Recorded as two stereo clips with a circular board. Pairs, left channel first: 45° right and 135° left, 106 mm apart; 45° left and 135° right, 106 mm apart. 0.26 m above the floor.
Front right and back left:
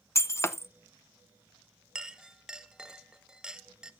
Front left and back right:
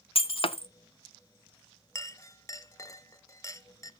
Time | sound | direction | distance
0.1 | breaking glass | 20° left | 0.7 m
1.9 | a clink | 60° left | 0.6 m